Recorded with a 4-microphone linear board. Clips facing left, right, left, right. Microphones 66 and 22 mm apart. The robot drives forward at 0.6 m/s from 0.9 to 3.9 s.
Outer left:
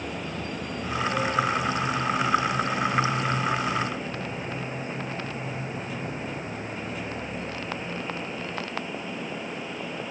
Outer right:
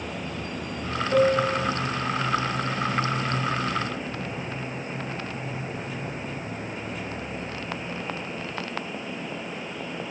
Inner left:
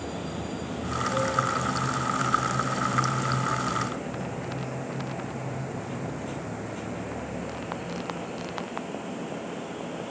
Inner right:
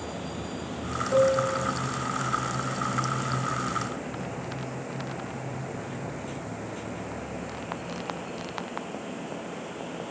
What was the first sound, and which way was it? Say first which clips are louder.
A piano: outer right 6 dB, inner right 5 dB; 55° right (ahead or behind).